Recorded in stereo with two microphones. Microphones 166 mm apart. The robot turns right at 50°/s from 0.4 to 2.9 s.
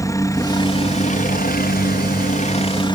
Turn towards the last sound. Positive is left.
turn(degrees=145)